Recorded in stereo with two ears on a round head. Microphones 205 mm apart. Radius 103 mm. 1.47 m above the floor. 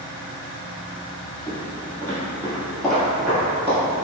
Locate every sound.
1.5 s footsteps: 15° left (ahead or behind), 1.8 m; by 3.8 s 10° right (ahead or behind), 1.4 m